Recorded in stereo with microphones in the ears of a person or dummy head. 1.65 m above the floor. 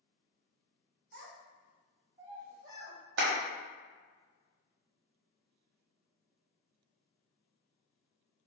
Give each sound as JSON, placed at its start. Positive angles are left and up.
{"t": 1.1, "sound": "a child speaking", "side_deg": -60, "distance_m": 1.0}
{"t": 3.2, "sound": "a clap", "side_deg": -65, "distance_m": 1.0}